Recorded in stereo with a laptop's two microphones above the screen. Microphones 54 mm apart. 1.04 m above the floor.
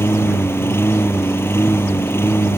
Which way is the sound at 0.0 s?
50° left (ahead or behind).